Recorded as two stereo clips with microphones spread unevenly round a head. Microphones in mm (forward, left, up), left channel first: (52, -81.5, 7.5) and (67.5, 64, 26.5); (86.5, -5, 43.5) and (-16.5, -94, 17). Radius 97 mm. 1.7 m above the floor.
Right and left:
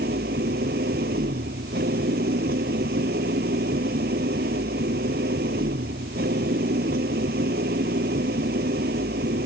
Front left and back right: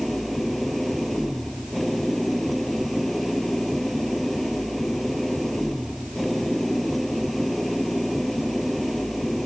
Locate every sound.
0.0 s an engine running: 130° left